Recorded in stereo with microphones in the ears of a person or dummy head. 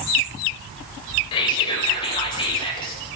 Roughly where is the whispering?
Left.